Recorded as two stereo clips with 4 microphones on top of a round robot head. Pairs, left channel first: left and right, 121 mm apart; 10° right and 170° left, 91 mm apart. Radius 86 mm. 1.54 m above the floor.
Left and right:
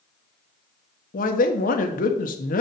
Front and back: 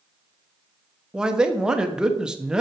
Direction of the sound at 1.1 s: 90° left.